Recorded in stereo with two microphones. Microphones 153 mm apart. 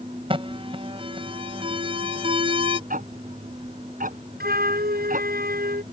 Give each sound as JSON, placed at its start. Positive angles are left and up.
{"t": 0.3, "sound": "an alarm", "side_deg": -35}
{"t": 2.9, "sound": "ticking", "side_deg": -65}
{"t": 4.4, "sound": "a flute", "side_deg": -85}